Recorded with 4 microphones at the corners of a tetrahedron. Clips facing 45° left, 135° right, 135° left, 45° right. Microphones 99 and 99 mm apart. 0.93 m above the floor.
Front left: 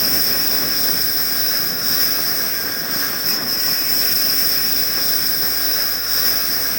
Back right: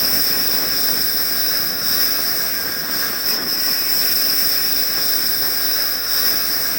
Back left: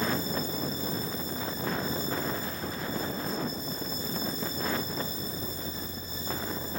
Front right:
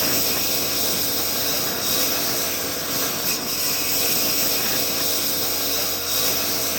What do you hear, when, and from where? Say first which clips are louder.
0.0 s a lawn mower: front left 1 dB, front right 3 dB; 45° right